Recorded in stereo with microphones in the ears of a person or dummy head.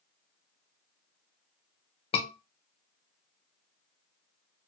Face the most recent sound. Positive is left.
turn(degrees=25)  # may be behind; listen again after turning